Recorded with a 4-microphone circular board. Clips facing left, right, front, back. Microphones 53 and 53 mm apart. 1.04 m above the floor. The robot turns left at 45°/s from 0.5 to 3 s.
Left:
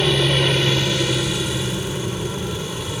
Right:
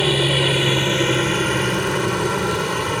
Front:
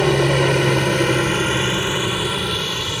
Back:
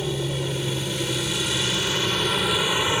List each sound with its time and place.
0.0 s a helicopter: 5° right; by 3.0 s 120° right